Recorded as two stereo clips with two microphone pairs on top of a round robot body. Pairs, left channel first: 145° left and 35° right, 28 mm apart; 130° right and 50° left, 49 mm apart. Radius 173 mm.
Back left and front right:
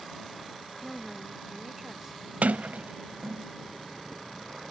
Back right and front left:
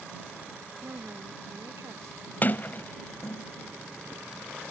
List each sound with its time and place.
0.8 s a woman speaking: 50° left; by 2.3 s 40° left
2.4 s a sliding door: 75° right